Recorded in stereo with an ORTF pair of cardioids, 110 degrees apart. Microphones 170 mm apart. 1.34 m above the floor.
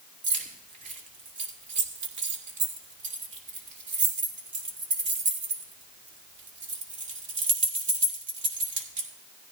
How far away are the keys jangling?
About 2 m.